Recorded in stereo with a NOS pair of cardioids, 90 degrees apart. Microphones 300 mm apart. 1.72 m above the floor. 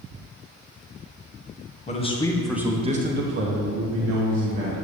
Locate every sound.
1.9 s a man speaking: 25° left, 1.4 m; by 4.8 s 80° right, 2 m